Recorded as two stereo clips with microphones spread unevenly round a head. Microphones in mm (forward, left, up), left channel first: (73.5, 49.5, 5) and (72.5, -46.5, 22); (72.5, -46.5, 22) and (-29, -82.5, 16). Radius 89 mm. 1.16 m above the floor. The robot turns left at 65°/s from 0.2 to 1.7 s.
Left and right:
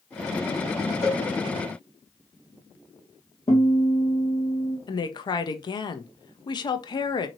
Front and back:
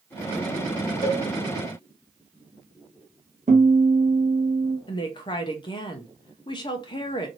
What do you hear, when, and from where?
1.0 s a cowbell: 130° left, 2 m; by 1.2 s 115° left, 2 m
3.5 s a guitar: 155° left, 0.8 m
4.9 s a woman speaking: 70° left, 0.5 m